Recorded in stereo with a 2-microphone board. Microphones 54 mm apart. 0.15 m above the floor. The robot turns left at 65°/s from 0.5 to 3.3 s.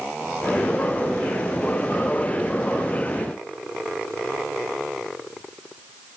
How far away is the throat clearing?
I don't hear throat clearing.